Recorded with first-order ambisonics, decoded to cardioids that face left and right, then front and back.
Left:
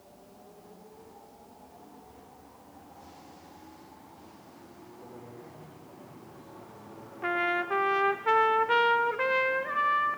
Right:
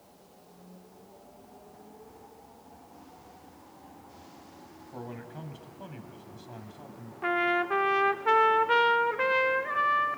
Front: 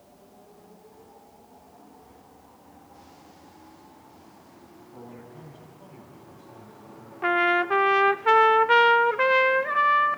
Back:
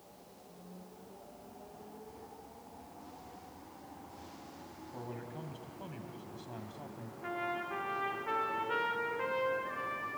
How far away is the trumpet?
About 0.5 m.